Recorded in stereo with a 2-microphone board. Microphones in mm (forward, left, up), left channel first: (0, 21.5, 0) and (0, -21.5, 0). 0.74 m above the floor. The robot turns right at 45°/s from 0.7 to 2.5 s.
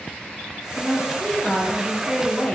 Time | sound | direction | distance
0.8 | a woman speaking | 20° right | 0.5 m